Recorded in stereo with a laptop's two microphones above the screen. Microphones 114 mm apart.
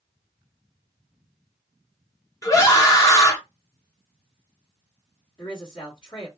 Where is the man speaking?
45° left (ahead or behind), 1.5 m.